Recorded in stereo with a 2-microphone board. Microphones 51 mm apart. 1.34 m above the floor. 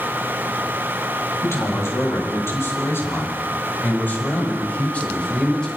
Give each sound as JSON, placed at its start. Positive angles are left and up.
{"t": 1.4, "sound": "a man speaking", "side_deg": 70, "distance_m": 8.0}